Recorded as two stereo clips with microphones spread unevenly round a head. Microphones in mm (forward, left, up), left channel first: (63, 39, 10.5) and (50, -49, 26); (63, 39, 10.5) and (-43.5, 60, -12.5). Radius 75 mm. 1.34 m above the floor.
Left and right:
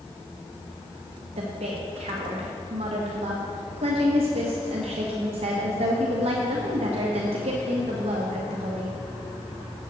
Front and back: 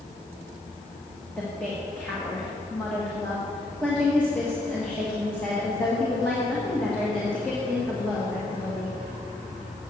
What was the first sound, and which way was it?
A woman speaking, 95° right.